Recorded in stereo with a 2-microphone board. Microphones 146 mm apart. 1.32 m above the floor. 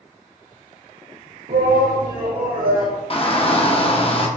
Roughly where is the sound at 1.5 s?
Right.